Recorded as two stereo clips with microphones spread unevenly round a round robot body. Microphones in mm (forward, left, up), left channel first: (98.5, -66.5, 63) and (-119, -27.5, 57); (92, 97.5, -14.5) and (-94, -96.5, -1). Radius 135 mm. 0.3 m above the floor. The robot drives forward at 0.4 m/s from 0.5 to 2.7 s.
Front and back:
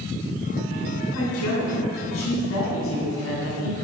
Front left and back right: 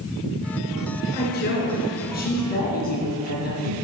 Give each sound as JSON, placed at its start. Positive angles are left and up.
{"t": 1.1, "sound": "a woman speaking", "azimuth_deg": -5, "distance_m": 3.0}